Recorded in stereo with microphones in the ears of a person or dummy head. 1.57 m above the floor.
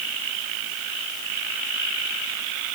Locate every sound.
Only background noise.